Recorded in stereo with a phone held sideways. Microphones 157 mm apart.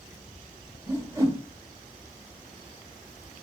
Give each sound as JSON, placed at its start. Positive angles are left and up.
{"t": 0.9, "sound": "a whoosh", "side_deg": -20, "distance_m": 1.2}